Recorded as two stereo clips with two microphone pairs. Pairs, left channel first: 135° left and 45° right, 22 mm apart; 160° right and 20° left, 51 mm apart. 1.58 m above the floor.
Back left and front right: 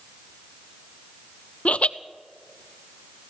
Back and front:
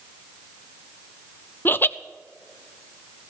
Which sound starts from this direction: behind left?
Laughter, at 1.6 s.